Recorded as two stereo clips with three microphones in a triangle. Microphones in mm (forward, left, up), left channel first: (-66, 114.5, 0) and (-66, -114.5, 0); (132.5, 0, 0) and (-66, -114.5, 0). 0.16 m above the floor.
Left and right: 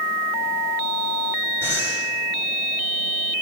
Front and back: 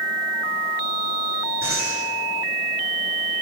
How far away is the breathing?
About 7.5 m.